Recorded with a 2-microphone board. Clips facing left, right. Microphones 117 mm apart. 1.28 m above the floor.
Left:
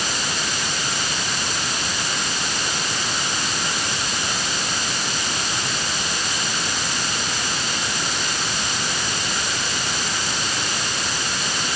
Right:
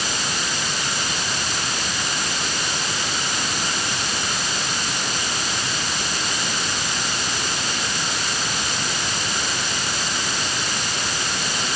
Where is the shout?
I don't hear a shout.